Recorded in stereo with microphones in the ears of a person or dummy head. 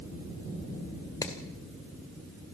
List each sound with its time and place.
1.2 s hammering: 15° left (ahead or behind), 2 m